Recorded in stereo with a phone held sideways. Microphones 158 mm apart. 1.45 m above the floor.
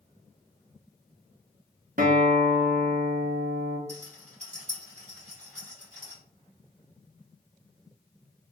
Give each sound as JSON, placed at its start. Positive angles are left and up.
{"t": 2.0, "sound": "a guitar", "side_deg": -60, "distance_m": 0.7}
{"t": 3.9, "sound": "a rattle", "side_deg": -50, "distance_m": 1.8}